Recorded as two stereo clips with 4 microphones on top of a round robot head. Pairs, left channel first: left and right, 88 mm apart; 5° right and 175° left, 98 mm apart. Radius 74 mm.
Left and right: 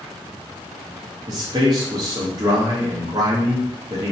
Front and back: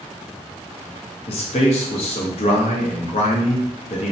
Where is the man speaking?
35° right, 0.6 m.